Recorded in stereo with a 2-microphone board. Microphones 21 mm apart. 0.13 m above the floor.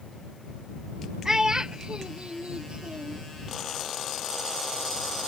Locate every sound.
1.2 s a child speaking: 20° right (ahead or behind); by 3.2 s 50° right (ahead or behind)